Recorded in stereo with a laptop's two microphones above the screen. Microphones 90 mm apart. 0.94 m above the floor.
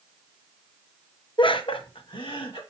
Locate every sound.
1.4 s laughter: 60° left (ahead or behind), 0.6 m